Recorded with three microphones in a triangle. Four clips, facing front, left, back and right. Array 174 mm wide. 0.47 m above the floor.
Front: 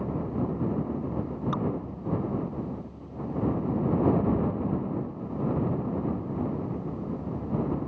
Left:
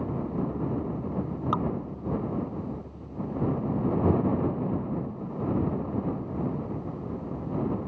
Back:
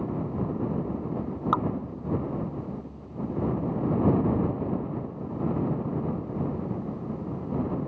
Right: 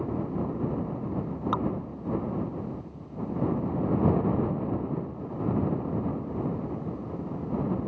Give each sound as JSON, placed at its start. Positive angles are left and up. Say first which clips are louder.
{"t": 1.5, "sound": "dripping", "louder": "left 1 dB, back 6 dB", "azimuth_deg": -175}